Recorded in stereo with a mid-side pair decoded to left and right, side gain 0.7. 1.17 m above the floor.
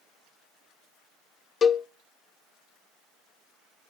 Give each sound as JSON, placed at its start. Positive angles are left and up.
{"t": 1.6, "sound": "a cowbell", "azimuth_deg": 30, "distance_m": 0.9}